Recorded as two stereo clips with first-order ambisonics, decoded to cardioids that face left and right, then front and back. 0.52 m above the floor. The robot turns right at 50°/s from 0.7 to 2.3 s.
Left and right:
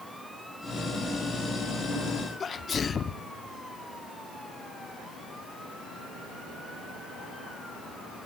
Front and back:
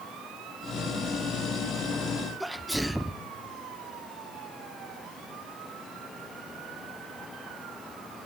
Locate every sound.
2.4 s a sneeze: 100° left, 0.6 m